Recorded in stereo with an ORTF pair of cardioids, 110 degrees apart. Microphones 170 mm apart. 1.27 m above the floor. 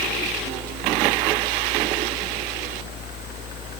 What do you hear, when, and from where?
0.0 s a fan: 65° left